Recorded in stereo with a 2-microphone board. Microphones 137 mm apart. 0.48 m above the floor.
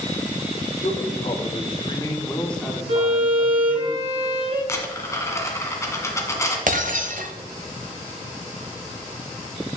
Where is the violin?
50° right (ahead or behind), 2 m.